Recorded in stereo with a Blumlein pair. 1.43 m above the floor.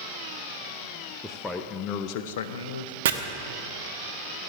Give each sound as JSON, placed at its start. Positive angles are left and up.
{"t": 1.2, "sound": "a man speaking", "azimuth_deg": 0, "distance_m": 0.7}
{"t": 3.0, "sound": "chopping", "azimuth_deg": -55, "distance_m": 0.9}